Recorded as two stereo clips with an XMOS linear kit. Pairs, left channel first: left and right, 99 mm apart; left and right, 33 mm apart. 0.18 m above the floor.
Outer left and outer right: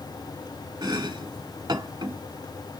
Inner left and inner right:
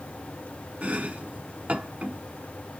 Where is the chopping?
45° right (ahead or behind), 0.9 m.